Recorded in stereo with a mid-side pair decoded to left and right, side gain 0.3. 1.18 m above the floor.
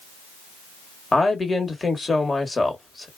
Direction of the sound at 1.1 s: 35° left.